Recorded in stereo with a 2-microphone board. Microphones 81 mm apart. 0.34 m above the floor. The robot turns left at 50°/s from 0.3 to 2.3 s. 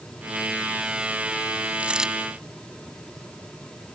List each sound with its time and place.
1.8 s a dropped coin: 20° right (ahead or behind); by 2.1 s 5° right (ahead or behind)